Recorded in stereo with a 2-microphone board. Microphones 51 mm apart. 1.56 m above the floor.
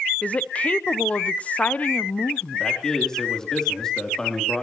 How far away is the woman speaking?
About 0.7 m.